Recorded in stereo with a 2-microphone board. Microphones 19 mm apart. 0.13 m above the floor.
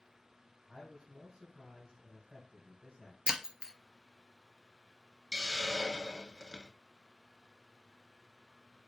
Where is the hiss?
35° right (ahead or behind), 1.1 m.